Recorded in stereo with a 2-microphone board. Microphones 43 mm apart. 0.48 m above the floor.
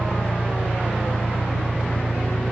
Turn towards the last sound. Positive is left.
turn(degrees=55)  # may be behind; listen again after turning